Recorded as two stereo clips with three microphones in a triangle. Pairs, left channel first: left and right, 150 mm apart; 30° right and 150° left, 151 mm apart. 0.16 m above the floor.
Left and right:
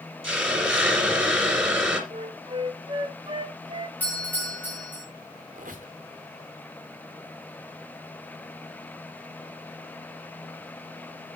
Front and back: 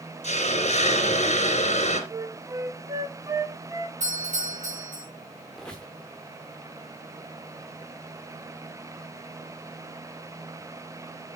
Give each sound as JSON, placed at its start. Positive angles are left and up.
{"t": 0.2, "sound": "a hiss", "azimuth_deg": -5, "distance_m": 2.5}
{"t": 2.1, "sound": "a flute", "azimuth_deg": -140, "distance_m": 0.6}
{"t": 4.0, "sound": "a doorbell", "azimuth_deg": 165, "distance_m": 4.0}
{"t": 5.5, "sound": "a squeak", "azimuth_deg": -115, "distance_m": 1.3}